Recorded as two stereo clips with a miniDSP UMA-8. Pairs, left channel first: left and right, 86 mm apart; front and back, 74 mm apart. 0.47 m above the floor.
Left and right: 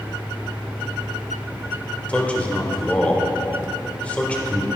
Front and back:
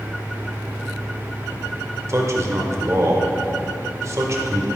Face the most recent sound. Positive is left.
turn(degrees=160)